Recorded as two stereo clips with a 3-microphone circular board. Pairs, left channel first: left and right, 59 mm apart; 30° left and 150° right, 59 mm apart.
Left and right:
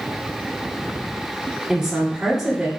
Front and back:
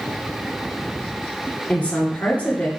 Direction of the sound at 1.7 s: 15° right.